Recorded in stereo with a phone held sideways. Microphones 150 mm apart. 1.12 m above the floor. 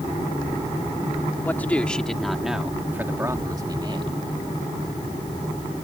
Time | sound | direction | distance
1.4 | a man speaking | 10° left (ahead or behind) | ?